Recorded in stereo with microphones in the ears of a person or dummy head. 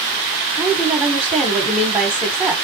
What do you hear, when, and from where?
0.6 s a woman speaking: 5° right (ahead or behind), 1.1 m